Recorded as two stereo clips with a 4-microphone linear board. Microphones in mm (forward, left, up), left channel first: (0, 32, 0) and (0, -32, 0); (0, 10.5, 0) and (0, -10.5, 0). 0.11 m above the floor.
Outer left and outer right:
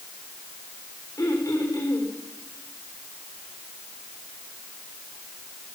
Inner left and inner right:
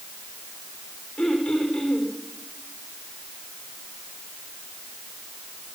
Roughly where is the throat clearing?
Left.